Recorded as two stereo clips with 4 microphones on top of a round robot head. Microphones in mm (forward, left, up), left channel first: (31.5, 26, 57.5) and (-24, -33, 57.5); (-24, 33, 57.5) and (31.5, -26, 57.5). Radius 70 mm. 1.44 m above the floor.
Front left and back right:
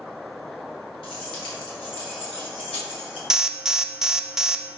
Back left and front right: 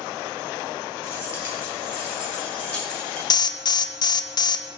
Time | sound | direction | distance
1.0 | keys jangling | 75° left | 2.5 m
3.3 | an alarm | 145° left | 0.6 m